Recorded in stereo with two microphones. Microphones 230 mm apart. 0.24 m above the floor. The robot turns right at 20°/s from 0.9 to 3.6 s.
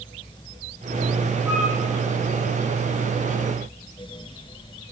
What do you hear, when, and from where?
1.5 s a flute: 5° right (ahead or behind), 6 m; by 1.8 s 15° right (ahead or behind), 6 m